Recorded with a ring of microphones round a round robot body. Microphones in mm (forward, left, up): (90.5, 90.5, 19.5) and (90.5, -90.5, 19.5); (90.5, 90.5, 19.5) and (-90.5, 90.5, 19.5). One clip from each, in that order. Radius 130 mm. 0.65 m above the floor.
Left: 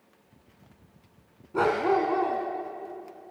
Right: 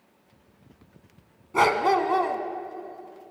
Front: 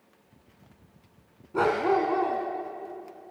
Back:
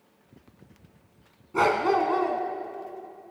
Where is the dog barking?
115° right, 1.6 m.